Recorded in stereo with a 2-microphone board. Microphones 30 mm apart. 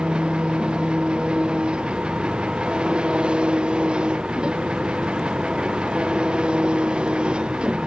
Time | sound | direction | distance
0.0 | an engine running | 35° right (ahead or behind) | ?